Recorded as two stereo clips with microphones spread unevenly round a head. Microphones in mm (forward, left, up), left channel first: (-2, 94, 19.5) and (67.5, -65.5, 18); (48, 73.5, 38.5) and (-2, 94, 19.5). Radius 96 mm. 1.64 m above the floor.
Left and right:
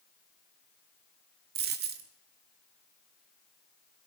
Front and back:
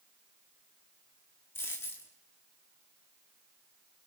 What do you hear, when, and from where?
1.6 s a dropped coin: 50° right, 1.7 m